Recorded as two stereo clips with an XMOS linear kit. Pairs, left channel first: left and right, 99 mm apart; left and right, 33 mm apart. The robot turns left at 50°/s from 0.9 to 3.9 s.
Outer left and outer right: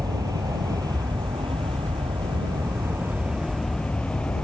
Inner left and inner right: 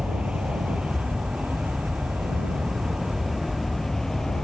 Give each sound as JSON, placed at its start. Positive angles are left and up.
{"t": 0.0, "sound": "an aircraft", "azimuth_deg": -45}